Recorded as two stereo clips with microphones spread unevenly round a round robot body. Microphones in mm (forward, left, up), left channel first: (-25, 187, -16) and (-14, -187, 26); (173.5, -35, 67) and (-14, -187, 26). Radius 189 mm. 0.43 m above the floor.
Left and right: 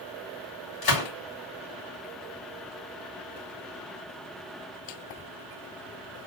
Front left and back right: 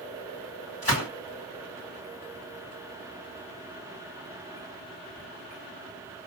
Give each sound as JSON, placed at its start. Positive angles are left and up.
{"t": 0.8, "sound": "a gunshot", "azimuth_deg": 110, "distance_m": 3.0}